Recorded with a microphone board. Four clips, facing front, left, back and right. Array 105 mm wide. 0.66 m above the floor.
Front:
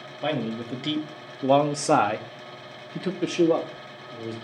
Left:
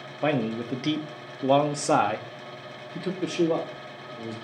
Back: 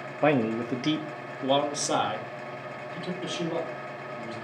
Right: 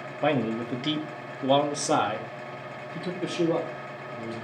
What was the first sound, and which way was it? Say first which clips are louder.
A man speaking: even, back 4 dB; 175° left.